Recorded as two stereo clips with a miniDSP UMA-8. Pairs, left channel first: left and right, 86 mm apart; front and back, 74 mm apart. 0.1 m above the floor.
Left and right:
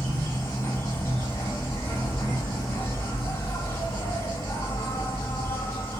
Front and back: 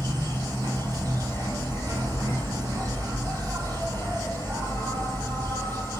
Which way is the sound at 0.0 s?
150° left.